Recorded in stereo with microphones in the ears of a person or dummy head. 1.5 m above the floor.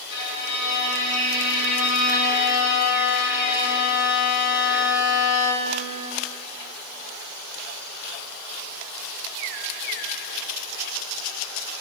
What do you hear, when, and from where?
0.1 s a violin: 70° left (ahead or behind), 2.5 m